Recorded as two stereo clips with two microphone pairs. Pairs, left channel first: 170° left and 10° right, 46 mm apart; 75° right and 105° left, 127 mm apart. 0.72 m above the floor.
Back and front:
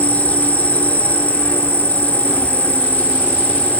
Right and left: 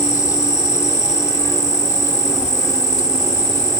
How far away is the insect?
About 1.8 m.